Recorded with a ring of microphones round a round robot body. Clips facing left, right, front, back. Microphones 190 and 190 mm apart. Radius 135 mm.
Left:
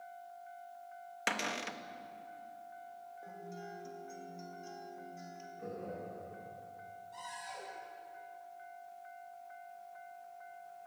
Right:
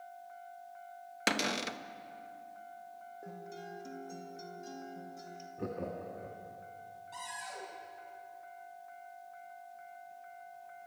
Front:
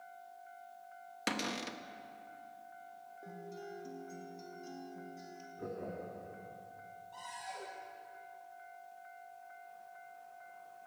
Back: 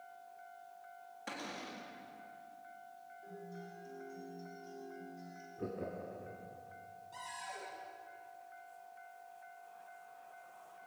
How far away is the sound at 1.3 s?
About 0.9 m.